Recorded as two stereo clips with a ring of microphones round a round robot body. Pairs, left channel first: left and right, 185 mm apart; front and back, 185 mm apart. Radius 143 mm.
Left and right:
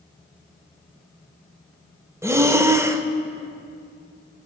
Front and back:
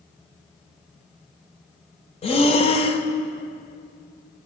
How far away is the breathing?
About 1.1 m.